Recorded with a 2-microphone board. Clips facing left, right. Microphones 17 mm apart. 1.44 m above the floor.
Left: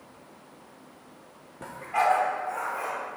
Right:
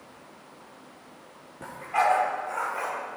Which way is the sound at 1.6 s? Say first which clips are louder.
Right 1 dB; 5° left (ahead or behind).